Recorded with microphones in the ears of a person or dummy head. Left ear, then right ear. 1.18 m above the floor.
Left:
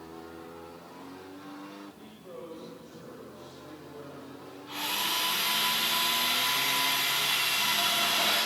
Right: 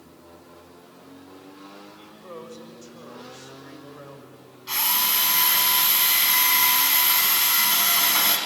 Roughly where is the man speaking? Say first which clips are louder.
Right 4 dB; right.